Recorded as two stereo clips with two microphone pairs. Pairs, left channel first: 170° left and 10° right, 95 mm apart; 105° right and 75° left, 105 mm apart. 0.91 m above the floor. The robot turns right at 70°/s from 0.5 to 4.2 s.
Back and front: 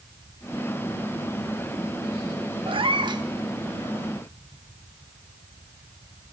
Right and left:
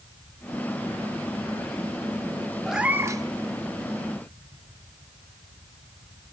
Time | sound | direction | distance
2.7 | a cat meowing | 15° right | 0.7 m